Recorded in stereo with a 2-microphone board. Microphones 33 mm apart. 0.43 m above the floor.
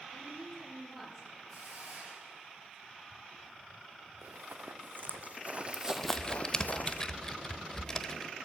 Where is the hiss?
45° right (ahead or behind), 5.5 m.